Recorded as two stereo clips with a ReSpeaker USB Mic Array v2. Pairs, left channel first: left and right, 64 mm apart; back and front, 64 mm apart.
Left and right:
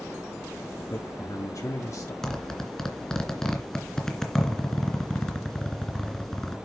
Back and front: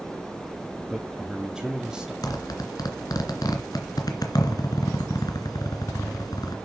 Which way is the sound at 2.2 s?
170° left.